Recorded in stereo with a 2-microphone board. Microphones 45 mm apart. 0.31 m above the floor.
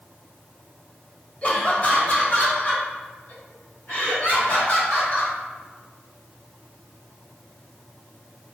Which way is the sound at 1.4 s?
30° left (ahead or behind).